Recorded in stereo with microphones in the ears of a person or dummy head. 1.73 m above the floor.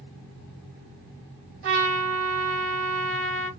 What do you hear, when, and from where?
1.6 s a trumpet: 60° right (ahead or behind), 3.5 m